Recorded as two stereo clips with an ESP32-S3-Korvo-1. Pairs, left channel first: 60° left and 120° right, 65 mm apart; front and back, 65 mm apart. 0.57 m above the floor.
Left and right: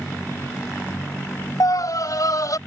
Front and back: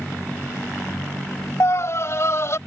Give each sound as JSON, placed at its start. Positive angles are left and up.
{"t": 1.6, "sound": "a scream", "azimuth_deg": 40}